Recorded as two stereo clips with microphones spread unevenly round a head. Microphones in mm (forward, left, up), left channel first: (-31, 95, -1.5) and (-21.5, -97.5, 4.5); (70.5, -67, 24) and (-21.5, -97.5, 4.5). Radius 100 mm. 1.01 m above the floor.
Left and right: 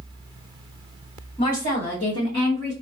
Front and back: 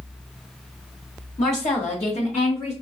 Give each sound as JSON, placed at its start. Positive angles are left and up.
{"t": 1.4, "sound": "a woman speaking", "azimuth_deg": 35, "distance_m": 1.6}